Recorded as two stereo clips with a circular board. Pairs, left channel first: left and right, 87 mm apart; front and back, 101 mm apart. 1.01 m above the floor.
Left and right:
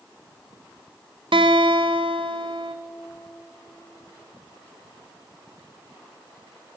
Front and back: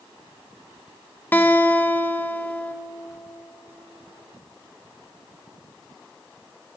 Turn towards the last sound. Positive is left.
turn(degrees=-70)